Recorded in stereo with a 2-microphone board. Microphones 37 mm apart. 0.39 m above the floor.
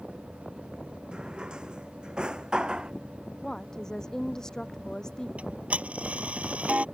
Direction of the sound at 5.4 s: 40° right (ahead or behind).